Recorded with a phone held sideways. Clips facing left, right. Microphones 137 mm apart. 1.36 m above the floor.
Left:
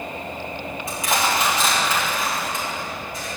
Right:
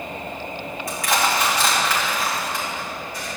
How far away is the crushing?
About 3.5 m.